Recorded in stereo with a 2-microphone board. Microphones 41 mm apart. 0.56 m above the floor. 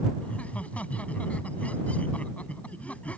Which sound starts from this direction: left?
Laughter, at 0.2 s.